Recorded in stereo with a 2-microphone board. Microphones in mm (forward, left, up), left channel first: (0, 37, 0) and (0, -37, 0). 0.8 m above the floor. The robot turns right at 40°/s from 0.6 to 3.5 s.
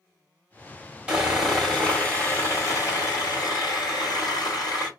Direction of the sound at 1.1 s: 15° right.